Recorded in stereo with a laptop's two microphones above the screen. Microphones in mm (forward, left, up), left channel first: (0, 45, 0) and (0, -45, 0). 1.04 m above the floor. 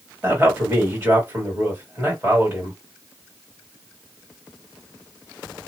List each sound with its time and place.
0.2 s a man speaking: 20° right (ahead or behind), 1.9 m